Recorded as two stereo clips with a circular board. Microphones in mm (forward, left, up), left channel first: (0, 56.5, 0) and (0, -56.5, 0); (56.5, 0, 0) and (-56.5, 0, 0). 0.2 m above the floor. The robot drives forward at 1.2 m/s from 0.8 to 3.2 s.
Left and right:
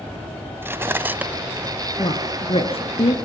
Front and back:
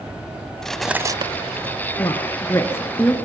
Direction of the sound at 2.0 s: 55° left.